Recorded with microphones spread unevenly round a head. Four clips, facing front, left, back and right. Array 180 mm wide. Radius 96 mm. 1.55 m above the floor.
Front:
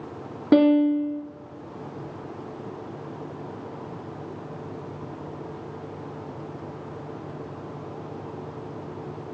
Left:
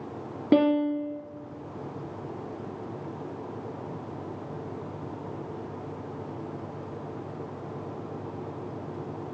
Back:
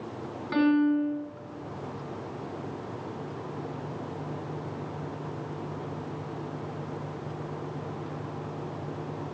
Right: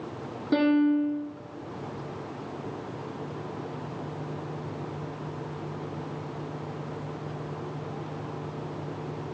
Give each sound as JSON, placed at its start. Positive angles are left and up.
{"t": 0.5, "sound": "a piano", "azimuth_deg": 30, "distance_m": 1.0}